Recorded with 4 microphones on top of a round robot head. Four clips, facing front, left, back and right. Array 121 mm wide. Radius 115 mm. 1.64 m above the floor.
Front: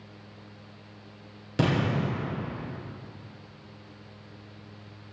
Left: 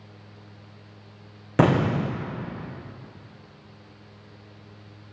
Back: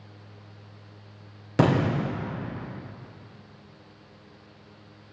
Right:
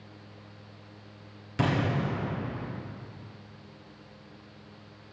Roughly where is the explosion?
Behind left.